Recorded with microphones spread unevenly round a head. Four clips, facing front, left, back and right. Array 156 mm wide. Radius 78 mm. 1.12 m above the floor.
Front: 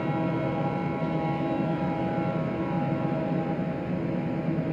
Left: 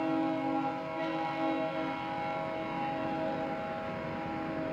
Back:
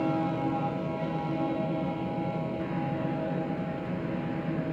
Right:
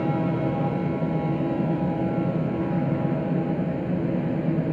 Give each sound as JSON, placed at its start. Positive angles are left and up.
{"t": 0.0, "sound": "a fan", "azimuth_deg": -80}